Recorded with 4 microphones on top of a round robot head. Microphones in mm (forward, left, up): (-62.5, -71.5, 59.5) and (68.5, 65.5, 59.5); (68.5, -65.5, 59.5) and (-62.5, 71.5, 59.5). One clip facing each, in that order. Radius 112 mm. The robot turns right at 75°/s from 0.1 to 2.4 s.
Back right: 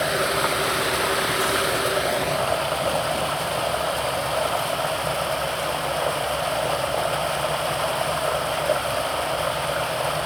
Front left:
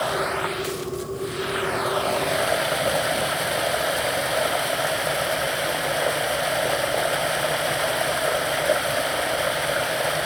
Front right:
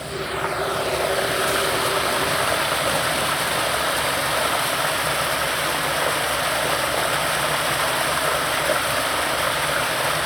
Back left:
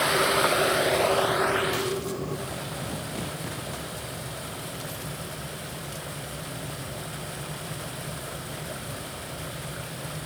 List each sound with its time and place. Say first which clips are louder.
0.0 s running water: back right 2 dB, back left 3 dB; 155° left; by 10.3 s 30° right